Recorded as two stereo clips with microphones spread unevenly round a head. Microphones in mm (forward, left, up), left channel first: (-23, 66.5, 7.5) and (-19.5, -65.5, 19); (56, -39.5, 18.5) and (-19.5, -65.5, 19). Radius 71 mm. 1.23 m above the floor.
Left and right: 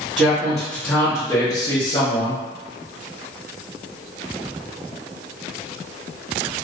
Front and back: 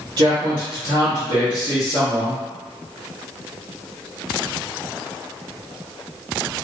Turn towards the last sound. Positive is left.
turn(degrees=120)